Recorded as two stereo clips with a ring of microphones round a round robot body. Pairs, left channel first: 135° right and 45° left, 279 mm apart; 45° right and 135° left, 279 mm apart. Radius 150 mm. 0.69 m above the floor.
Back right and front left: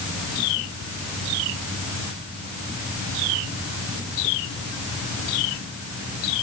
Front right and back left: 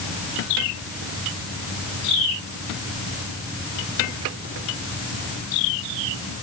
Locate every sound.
Only background noise.